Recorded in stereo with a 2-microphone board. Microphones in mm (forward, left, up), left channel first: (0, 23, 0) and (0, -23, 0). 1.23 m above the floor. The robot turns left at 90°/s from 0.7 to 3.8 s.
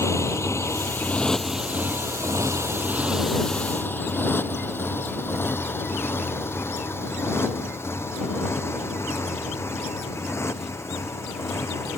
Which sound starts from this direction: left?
A motorcycle, at 0.0 s.